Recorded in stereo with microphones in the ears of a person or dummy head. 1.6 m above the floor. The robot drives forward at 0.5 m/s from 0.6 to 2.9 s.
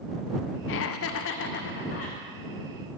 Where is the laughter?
65° left (ahead or behind), 0.5 m; by 2.2 s 40° left (ahead or behind), 0.8 m.